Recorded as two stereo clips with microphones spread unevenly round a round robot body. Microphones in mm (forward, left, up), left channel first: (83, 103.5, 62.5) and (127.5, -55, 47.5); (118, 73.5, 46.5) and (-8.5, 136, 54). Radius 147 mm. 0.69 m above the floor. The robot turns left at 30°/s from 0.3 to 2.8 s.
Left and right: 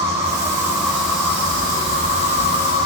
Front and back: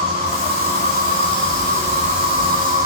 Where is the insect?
150° right, 1.2 m; by 2.9 s 135° left, 1.2 m.